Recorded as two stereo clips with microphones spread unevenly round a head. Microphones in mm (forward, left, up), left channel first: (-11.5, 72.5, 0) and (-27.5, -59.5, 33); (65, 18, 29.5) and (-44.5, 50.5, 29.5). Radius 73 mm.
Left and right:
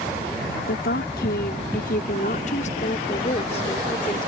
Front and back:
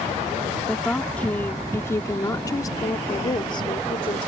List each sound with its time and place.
0.7 s a woman speaking: 70° left; by 4.3 s 20° left